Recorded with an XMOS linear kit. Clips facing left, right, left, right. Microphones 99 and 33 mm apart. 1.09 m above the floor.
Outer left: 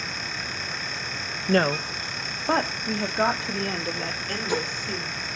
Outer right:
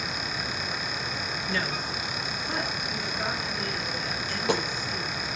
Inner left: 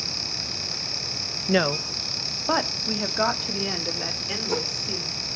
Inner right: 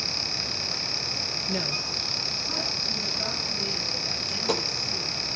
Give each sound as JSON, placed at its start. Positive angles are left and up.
{"t": 1.5, "sound": "a woman speaking", "side_deg": 55, "distance_m": 0.8}
{"t": 4.3, "sound": "a dropped coin", "side_deg": -80, "distance_m": 10.0}